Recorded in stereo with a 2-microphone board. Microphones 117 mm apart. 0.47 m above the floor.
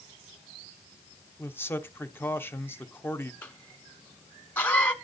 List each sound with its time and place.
1.4 s a man speaking: 20° left (ahead or behind), 0.9 m
3.4 s a cough: 10° left (ahead or behind), 1.3 m